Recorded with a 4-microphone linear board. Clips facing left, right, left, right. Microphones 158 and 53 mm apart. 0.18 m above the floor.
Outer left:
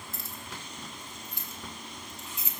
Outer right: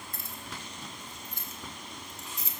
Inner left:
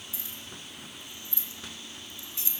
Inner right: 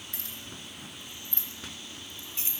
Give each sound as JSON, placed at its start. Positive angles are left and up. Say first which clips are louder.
{"t": 0.1, "sound": "keys jangling", "louder": "even, even", "side_deg": -60, "distance_m": 2.0}